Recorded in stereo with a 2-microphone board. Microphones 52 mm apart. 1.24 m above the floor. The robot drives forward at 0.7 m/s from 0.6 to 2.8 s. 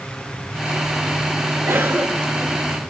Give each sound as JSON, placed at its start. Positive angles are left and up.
{"t": 1.7, "sound": "a cough", "side_deg": -60, "distance_m": 1.6}